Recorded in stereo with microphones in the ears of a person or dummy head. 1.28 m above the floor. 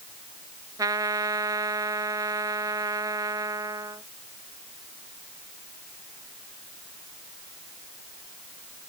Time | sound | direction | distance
0.8 | a trumpet | 20° right (ahead or behind) | ?